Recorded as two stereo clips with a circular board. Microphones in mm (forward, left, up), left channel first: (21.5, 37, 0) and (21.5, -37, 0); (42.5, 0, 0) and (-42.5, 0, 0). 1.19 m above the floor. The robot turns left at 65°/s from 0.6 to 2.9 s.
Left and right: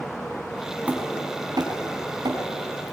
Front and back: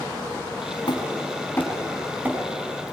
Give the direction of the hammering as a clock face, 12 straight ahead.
1 o'clock.